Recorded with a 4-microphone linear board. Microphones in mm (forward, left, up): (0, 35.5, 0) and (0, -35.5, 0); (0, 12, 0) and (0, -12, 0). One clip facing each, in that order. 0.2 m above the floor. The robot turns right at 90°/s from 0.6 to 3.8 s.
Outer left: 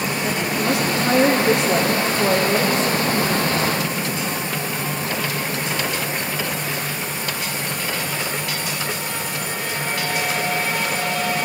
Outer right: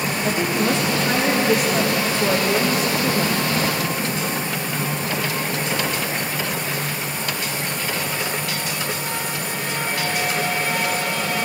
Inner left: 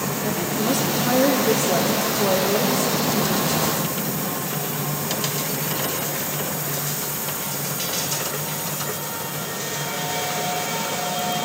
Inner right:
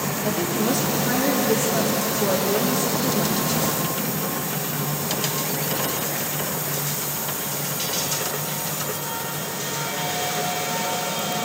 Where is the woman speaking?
10° right, 6.5 m; by 4.1 s 80° right, 6.5 m.